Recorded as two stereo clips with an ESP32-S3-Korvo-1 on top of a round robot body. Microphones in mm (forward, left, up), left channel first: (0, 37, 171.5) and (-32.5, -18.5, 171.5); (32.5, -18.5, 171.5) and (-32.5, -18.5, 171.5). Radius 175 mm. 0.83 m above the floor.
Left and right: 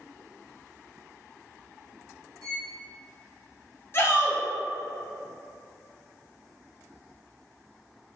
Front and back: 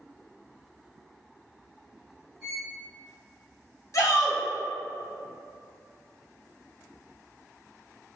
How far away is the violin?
About 0.9 m.